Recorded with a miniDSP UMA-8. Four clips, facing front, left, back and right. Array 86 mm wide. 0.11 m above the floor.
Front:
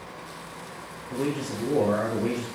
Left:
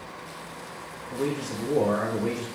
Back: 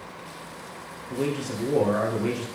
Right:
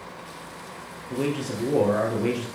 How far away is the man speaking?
About 2.5 m.